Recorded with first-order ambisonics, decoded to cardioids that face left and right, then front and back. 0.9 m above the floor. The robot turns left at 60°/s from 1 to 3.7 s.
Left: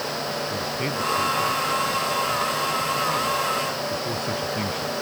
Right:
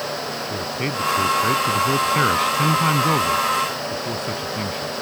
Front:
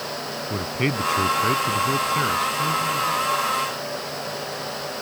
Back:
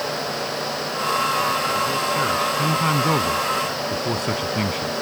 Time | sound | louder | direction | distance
0.5 | a man speaking | right 1 dB, even | 15° right | ?